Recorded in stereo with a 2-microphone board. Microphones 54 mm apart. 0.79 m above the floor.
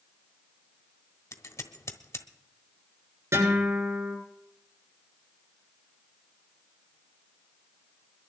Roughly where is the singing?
I don't hear singing.